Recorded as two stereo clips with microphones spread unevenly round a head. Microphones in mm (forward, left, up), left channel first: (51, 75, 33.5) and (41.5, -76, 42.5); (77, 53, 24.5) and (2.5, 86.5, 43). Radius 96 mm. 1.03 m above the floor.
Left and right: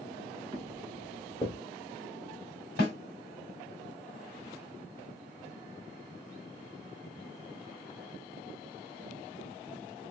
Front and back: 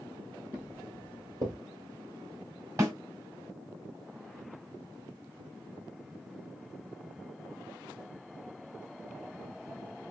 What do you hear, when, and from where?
0.5 s footsteps: 145° right, 1.5 m; by 1.6 s 160° left, 1.7 m
2.8 s a snare drum: 125° left, 1.5 m